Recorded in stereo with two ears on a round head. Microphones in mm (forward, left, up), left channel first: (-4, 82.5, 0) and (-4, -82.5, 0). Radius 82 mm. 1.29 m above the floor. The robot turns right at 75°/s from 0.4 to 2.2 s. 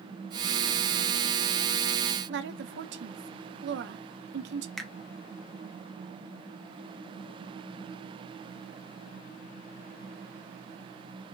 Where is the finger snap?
Centre (ahead or behind), 1.0 m.